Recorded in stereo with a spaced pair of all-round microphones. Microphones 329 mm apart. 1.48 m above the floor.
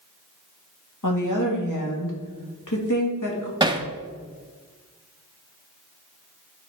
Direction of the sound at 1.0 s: 60° left (ahead or behind).